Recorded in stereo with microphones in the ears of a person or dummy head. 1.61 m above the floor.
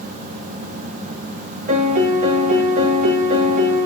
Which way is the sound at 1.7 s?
35° right (ahead or behind).